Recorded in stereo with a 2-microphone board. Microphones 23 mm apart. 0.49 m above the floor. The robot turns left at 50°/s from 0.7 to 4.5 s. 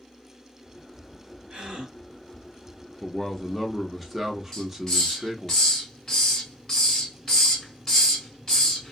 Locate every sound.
1.5 s a gasp: 40° right (ahead or behind), 1.6 m; by 1.9 s 45° right (ahead or behind), 1.6 m
3.0 s a man speaking: 65° left, 0.8 m; by 5.5 s 10° right, 0.8 m
4.5 s a hiss: 20° left (ahead or behind), 1.8 m